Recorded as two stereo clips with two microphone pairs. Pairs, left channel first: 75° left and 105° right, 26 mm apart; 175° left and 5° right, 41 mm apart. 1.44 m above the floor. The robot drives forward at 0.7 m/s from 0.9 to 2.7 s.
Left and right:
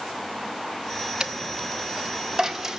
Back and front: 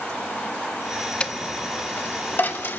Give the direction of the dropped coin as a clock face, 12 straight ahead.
5 o'clock.